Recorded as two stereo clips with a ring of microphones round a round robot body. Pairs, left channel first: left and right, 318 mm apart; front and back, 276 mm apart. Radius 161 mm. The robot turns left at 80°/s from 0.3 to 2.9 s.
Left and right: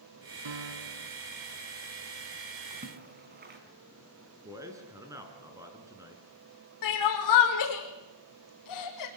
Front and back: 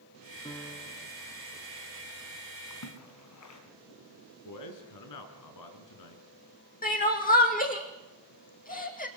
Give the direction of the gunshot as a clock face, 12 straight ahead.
No gunshot in this recording.